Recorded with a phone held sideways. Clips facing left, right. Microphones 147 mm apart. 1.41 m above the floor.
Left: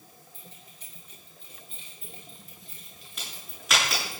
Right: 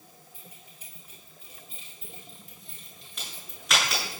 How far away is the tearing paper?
I don't hear tearing paper.